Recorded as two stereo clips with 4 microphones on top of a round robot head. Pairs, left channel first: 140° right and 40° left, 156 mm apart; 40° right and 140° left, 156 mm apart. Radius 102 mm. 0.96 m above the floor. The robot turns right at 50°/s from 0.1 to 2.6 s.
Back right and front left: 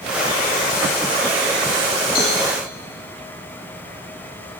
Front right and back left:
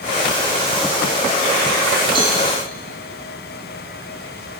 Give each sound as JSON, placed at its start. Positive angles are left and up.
{"t": 2.1, "sound": "a cowbell", "azimuth_deg": -160, "distance_m": 4.5}